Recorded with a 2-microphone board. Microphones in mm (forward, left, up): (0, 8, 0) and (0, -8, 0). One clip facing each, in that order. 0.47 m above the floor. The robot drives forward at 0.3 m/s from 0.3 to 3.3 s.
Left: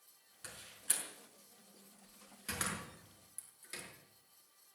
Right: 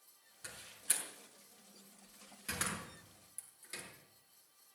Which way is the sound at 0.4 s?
5° left (ahead or behind).